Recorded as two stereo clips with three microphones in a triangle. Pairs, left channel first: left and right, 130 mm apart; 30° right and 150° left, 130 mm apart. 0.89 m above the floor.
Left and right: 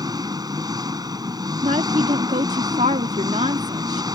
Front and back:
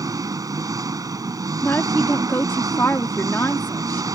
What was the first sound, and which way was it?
An engine running, 145° right.